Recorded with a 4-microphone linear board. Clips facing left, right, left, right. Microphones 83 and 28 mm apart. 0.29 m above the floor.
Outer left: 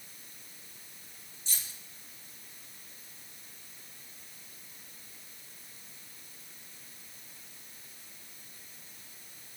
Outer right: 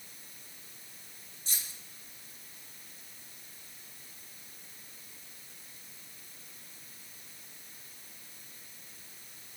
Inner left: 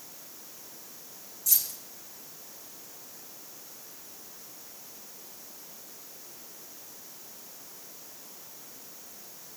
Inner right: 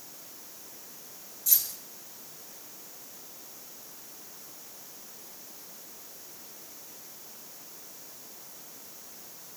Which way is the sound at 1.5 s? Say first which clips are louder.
Even, even; 45° right (ahead or behind).